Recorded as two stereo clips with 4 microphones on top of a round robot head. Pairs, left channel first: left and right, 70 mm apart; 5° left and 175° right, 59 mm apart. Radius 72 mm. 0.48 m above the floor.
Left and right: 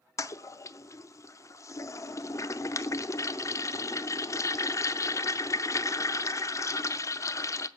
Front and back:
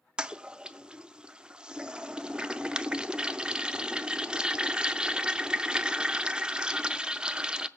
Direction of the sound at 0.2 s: 115° left.